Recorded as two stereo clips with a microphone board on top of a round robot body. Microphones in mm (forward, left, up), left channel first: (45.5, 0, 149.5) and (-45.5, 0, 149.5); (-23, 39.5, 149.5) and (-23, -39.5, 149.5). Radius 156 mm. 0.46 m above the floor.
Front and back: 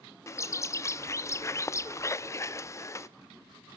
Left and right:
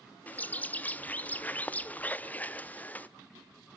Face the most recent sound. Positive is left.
turn(degrees=35)